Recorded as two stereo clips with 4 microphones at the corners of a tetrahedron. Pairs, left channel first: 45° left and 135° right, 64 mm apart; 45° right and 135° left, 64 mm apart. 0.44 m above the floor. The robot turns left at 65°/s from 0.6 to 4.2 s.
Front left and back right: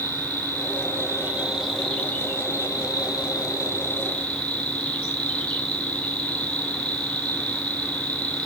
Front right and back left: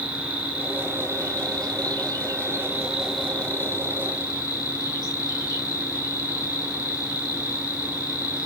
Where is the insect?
150° right, 1.2 m; by 8.5 s 25° right, 1.2 m.